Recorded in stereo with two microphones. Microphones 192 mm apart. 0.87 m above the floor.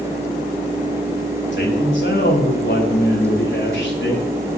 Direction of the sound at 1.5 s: 70° left (ahead or behind).